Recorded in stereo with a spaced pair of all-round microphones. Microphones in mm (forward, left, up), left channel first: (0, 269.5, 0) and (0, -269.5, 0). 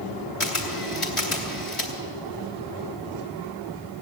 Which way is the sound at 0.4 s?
65° left (ahead or behind).